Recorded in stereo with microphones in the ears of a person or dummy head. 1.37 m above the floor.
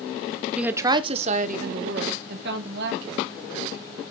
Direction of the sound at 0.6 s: 5° right (ahead or behind).